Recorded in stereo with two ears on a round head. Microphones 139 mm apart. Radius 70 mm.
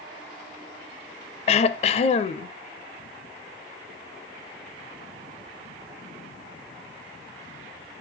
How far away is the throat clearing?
About 0.5 m.